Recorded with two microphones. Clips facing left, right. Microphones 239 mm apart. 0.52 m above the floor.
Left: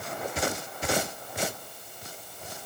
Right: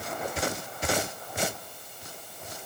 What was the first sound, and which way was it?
Only background noise.